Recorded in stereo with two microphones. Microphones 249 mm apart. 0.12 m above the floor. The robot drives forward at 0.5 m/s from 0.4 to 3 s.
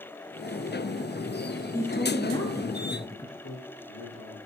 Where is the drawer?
No drawer in this recording.